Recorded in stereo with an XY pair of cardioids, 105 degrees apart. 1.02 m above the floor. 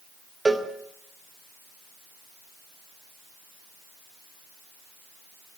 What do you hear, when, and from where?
0.5 s a cowbell: 20° right, 2.5 m